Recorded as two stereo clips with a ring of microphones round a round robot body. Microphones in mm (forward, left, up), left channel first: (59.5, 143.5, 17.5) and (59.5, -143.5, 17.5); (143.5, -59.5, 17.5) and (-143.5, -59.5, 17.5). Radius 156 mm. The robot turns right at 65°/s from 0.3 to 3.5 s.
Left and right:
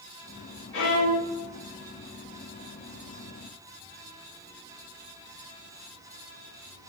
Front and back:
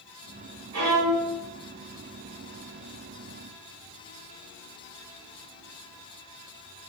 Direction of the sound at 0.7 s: 140° left.